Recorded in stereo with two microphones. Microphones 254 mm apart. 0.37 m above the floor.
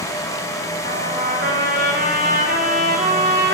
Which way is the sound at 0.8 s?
50° right (ahead or behind).